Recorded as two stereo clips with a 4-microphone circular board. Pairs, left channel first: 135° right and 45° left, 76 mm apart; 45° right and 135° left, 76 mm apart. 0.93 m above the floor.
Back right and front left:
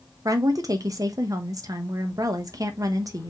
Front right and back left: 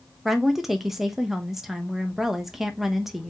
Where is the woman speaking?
50° left, 0.8 m.